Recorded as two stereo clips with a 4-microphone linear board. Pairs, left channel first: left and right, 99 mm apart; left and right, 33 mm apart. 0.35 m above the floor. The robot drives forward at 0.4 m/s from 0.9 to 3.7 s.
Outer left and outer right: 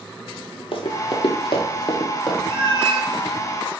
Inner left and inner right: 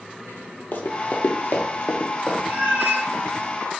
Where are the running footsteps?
65° left (ahead or behind), 0.7 m; by 2.4 s 50° left (ahead or behind), 1.0 m.